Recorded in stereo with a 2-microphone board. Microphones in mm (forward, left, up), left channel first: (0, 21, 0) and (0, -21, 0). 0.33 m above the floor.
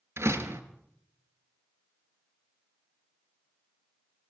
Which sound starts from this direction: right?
A door slam, at 0.2 s.